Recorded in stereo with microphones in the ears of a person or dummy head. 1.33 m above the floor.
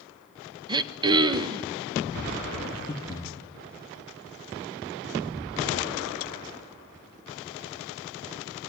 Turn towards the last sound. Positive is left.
turn(degrees=15)  # may be behind; listen again after turning